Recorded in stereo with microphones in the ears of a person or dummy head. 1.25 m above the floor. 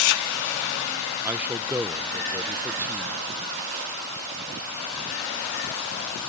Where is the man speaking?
10° right (ahead or behind).